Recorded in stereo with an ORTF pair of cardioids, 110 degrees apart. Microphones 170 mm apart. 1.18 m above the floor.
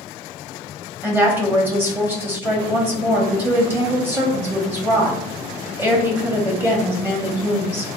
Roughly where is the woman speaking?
Ahead.